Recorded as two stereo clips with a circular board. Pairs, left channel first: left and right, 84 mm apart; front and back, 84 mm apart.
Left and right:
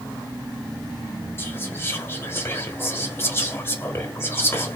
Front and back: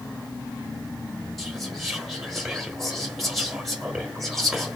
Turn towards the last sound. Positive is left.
turn(degrees=90)